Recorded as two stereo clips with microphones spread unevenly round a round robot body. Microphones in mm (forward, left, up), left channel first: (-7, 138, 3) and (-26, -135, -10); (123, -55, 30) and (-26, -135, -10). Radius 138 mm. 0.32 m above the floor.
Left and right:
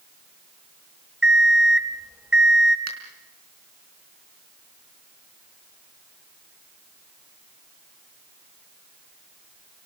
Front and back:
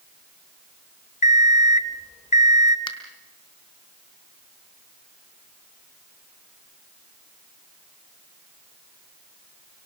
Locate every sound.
1.2 s an alarm clock: 10° right, 0.8 m
2.9 s a finger snap: 40° right, 4 m